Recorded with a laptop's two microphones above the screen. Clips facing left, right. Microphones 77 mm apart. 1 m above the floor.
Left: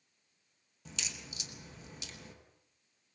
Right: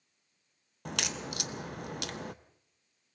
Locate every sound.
0.8 s a crack: 65° right (ahead or behind), 0.9 m